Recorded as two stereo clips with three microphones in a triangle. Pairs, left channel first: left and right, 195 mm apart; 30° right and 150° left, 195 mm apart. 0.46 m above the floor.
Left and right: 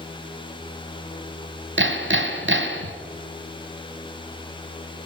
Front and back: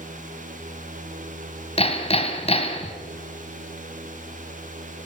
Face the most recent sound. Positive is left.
turn(degrees=-90)